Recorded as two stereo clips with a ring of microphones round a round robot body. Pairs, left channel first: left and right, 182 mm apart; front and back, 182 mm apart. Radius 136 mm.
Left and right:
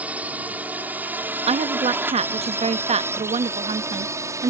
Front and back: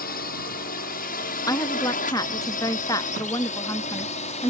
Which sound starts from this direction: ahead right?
A woman speaking, at 1.5 s.